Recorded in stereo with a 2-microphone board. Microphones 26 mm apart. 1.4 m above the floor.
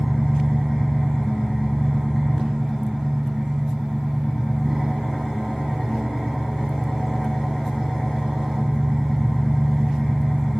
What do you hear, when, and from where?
0.0 s an engine running: 5° left (ahead or behind), 5 m